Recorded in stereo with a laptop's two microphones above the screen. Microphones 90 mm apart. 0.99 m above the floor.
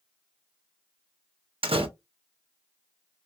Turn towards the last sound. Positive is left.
turn(degrees=-80)